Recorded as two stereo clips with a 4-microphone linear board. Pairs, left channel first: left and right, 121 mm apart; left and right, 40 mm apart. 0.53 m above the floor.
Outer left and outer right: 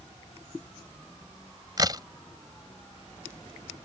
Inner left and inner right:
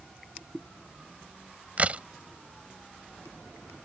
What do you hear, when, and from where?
1.8 s a crack: 35° right (ahead or behind)